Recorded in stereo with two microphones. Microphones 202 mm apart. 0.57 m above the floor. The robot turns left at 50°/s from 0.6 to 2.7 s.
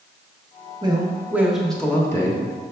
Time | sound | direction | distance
0.8 | a man speaking | 140° right | 1.1 m